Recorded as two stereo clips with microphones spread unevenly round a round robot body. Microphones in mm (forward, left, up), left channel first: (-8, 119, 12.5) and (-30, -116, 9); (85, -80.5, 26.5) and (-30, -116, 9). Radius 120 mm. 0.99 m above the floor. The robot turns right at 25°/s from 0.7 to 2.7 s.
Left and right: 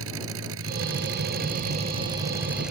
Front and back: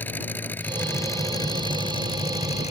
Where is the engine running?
55° right; by 2.7 s 5° right.